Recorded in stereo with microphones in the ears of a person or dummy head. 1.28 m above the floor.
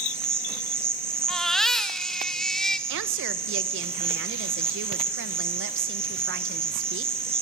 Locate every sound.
0.0 s an insect: 10° right (ahead or behind), 1.6 m
1.3 s a baby crying: centre (ahead or behind), 1.3 m
2.9 s a woman speaking: 65° right (ahead or behind), 1.4 m